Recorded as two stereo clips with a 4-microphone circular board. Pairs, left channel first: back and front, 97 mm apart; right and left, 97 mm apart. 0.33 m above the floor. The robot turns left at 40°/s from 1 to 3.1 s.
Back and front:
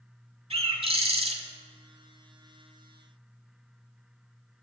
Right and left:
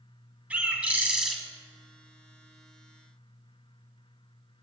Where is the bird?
15° left, 0.6 m; by 1.4 s straight ahead, 0.6 m.